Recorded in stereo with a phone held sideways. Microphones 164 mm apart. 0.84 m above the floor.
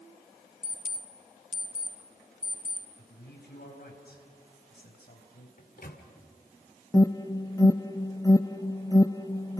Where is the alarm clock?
35° right (ahead or behind), 3 m.